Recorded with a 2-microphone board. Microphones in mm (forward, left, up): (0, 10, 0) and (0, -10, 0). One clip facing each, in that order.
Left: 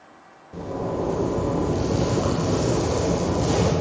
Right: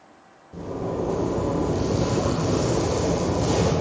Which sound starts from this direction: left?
A zipper, at 0.5 s.